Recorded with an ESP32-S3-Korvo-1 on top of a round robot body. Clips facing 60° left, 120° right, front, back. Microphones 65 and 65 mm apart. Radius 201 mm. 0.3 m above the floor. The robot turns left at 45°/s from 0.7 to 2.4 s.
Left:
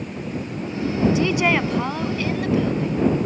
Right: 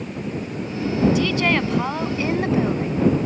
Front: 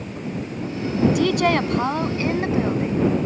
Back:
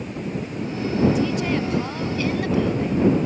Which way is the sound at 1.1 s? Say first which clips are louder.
Left 1 dB, front 4 dB; 5° right.